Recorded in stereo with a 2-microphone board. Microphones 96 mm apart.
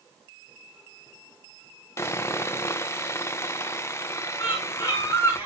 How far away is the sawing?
About 0.7 m.